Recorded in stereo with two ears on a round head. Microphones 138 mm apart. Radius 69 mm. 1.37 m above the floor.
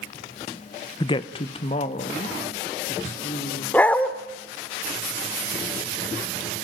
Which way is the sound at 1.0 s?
25° left (ahead or behind).